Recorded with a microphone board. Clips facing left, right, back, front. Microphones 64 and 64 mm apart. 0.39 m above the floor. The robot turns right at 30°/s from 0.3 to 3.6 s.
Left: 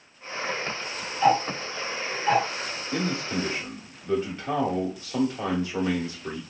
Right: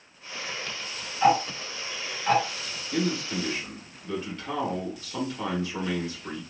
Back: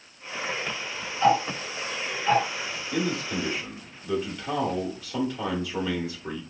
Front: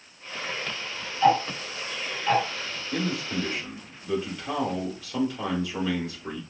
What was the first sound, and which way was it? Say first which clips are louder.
Ticking: even, front 1 dB; 130° right.